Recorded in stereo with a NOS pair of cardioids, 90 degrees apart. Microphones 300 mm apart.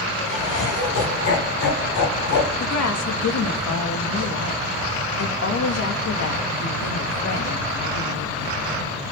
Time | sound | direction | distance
0.2 | laughter | 60° left | 4 m
2.6 | a woman speaking | 60° left | 2.5 m